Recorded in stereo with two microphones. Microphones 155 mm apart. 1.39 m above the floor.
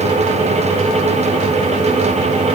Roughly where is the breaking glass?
No breaking glass in this recording.